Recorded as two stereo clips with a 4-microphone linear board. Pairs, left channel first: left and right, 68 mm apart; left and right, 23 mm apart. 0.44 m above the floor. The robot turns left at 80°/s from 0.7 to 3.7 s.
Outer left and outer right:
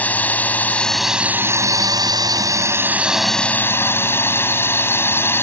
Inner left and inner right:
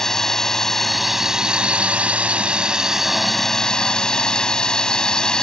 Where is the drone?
25° left; by 5.4 s 145° left.